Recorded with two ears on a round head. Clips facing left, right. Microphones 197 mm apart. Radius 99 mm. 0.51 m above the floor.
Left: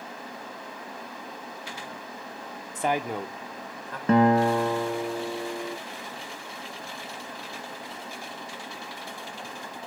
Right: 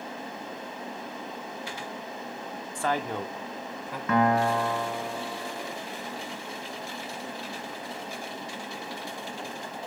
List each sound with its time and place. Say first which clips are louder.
2.8 s a man speaking: left 2 dB; 20° left (ahead or behind), 1.1 m; by 4.0 s 10° right (ahead or behind), 2 m
4.1 s a guitar: left 4 dB; 30° left (ahead or behind), 1.2 m